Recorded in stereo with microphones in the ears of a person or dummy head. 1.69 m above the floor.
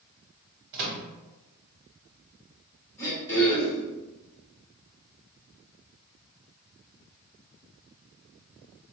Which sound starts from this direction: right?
A microwave, at 0.7 s.